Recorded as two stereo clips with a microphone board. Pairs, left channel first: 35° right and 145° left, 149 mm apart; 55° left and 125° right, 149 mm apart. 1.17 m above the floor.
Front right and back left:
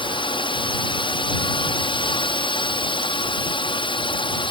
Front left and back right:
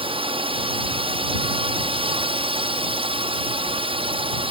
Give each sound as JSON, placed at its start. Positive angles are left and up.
{"t": 0.0, "sound": "a drone", "azimuth_deg": -80}